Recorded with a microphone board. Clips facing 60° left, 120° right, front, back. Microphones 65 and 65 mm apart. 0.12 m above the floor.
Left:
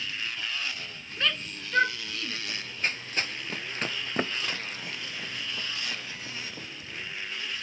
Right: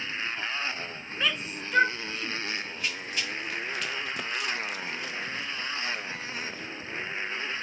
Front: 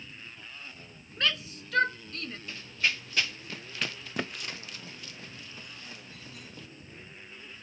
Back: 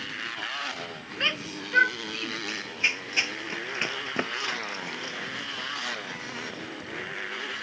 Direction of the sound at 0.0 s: Straight behind.